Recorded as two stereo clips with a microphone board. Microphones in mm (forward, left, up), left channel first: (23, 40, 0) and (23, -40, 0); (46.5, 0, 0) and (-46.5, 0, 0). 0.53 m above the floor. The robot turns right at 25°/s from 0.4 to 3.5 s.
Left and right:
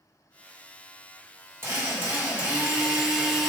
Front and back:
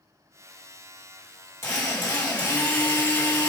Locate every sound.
1.6 s a drill: 50° right, 1.6 m; by 3.5 s 5° right, 1.6 m